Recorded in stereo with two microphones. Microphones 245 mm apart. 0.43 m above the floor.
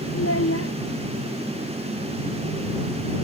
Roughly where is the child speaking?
Left.